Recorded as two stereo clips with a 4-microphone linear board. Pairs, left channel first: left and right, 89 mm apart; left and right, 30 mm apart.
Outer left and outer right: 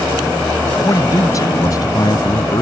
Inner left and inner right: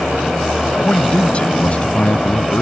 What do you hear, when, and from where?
0.8 s a man speaking: 35° left (ahead or behind); by 2.6 s 50° left (ahead or behind)